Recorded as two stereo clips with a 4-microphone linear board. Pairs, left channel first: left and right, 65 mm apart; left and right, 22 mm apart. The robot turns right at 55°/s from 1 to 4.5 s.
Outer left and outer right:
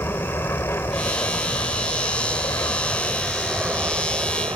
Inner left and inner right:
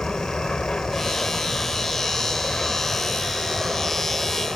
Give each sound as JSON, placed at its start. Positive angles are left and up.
{"t": 0.0, "sound": "an aircraft", "side_deg": 40}